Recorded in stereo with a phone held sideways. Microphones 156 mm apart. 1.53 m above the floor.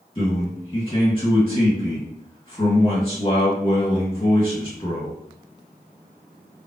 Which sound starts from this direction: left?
A man speaking, at 0.1 s.